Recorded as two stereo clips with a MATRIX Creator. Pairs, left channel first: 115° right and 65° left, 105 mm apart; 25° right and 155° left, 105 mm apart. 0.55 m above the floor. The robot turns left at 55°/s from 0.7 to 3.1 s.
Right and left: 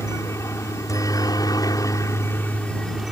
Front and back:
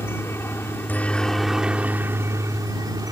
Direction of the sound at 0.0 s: 75° right.